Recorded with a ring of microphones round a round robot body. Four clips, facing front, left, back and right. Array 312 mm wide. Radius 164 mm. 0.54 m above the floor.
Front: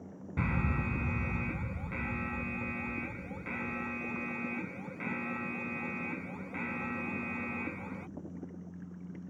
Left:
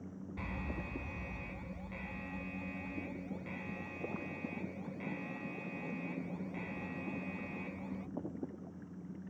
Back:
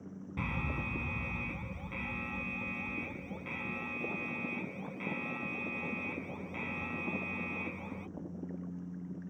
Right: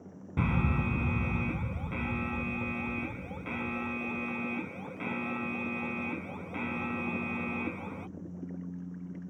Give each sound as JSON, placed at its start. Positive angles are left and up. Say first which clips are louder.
{"t": 0.4, "sound": "an alarm", "louder": "right 13 dB, front 5 dB", "azimuth_deg": -75}